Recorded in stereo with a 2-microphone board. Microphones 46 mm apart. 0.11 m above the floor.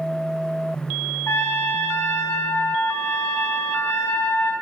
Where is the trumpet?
80° left, 2.5 m.